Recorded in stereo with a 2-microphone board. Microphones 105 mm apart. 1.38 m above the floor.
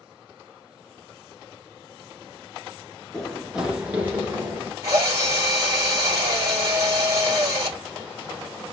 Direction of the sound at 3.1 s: 5° left (ahead or behind).